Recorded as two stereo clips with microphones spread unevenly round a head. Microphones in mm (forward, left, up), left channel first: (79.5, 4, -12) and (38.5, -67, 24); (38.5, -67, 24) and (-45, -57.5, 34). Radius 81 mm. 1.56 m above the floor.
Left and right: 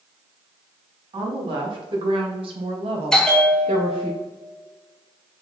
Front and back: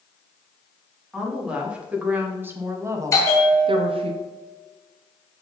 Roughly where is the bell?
Ahead right.